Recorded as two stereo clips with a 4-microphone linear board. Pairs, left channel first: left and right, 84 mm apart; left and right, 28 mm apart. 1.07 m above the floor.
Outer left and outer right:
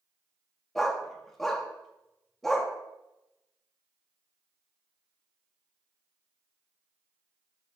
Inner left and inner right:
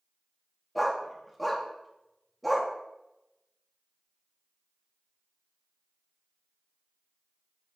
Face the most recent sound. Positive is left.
turn(degrees=5)  # may be behind; listen again after turning